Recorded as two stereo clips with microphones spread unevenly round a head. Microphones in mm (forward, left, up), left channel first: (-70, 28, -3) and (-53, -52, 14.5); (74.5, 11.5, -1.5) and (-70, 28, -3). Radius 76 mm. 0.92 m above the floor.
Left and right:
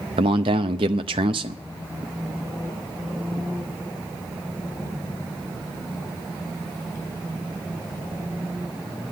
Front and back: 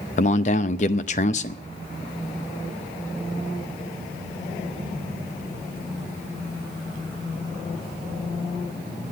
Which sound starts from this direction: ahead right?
A man speaking, at 0.2 s.